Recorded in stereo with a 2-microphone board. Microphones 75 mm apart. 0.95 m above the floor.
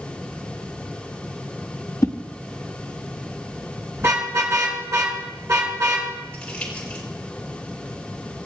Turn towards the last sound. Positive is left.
turn(degrees=15)  # may be behind; listen again after turning